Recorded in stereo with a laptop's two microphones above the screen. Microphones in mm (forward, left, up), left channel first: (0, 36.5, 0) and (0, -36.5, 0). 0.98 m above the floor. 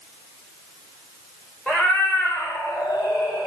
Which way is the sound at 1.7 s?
10° left (ahead or behind).